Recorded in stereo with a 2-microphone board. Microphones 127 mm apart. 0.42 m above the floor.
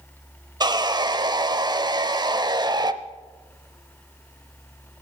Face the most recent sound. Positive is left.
turn(degrees=-35)  # may be behind; listen again after turning